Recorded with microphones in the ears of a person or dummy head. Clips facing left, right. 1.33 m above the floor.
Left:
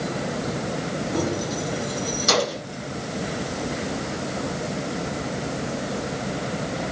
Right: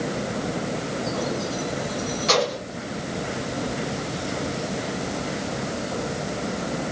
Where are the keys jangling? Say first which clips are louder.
Left 2 dB; 75° left (ahead or behind), 5.5 m; by 2.6 s 65° left (ahead or behind), 7.5 m.